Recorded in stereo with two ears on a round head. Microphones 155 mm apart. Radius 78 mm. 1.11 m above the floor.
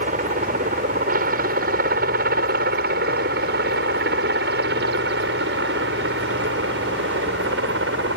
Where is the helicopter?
45° right (ahead or behind); by 8.2 s 70° right (ahead or behind).